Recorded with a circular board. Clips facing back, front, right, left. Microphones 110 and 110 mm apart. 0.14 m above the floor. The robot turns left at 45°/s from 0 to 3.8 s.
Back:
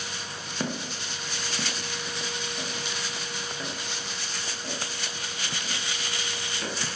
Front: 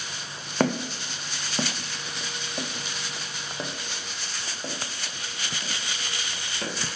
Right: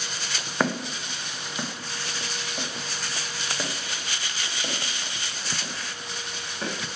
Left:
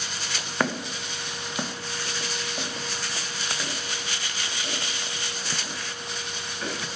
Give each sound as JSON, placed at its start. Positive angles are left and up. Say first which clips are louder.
{"t": 0.6, "sound": "footsteps", "louder": "front 8 dB, right 1 dB", "azimuth_deg": -5, "distance_m": 0.7}